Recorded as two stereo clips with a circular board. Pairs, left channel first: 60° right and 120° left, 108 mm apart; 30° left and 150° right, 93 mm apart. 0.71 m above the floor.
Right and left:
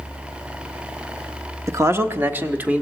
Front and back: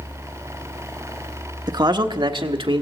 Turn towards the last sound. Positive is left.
turn(degrees=-165)